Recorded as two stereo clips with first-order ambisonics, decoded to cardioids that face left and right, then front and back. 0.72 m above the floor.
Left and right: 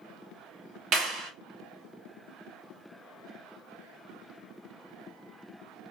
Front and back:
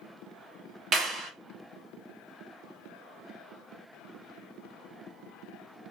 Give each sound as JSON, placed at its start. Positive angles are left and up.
{"t": 0.9, "sound": "a clap", "azimuth_deg": -125, "distance_m": 0.8}